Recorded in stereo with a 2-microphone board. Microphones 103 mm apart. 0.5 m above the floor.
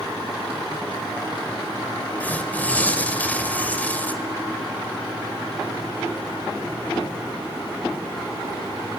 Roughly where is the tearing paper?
Centre.